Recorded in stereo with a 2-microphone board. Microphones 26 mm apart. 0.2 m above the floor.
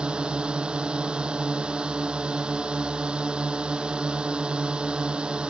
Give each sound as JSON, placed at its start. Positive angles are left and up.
{"t": 0.0, "sound": "a drone", "side_deg": -45}